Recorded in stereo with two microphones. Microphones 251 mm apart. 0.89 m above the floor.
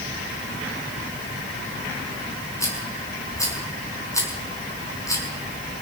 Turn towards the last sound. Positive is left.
turn(degrees=10)  # may be behind; listen again after turning